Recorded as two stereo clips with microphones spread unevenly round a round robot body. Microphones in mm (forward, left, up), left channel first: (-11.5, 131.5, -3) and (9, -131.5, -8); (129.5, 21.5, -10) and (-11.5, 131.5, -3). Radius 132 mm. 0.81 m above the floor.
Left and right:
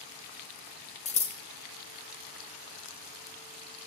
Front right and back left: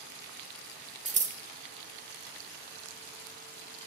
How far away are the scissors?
About 0.8 m.